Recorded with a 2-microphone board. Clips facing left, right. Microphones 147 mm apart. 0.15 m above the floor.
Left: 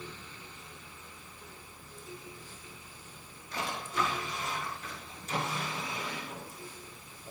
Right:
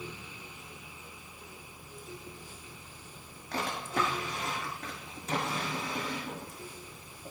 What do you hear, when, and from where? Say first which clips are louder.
3.5 s a drawer: right 2 dB; 70° right (ahead or behind), 5 m